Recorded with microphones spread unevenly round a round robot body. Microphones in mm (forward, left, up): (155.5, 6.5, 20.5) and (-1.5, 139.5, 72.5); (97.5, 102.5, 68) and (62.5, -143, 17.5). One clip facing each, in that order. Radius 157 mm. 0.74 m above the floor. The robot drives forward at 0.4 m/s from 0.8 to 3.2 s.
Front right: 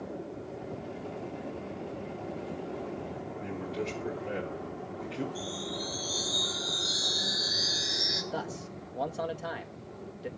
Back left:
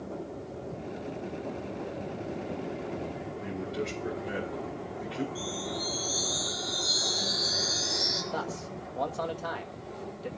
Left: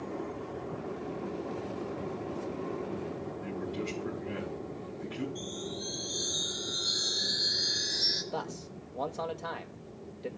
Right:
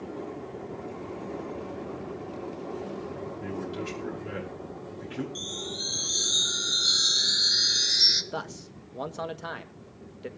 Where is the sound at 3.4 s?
125° right, 9 m.